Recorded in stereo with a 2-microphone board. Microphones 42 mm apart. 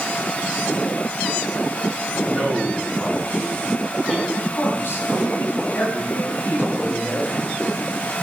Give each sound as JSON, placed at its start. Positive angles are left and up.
{"t": 2.3, "sound": "a man speaking", "side_deg": 15, "distance_m": 5.5}
{"t": 4.3, "sound": "a man speaking", "side_deg": 65, "distance_m": 6.0}